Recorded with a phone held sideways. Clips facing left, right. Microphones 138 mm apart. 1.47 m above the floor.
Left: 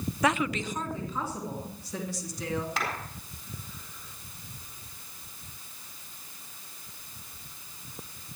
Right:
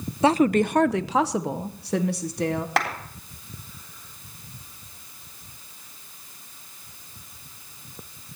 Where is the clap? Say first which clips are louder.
Right 8 dB; 85° right, 3.5 m.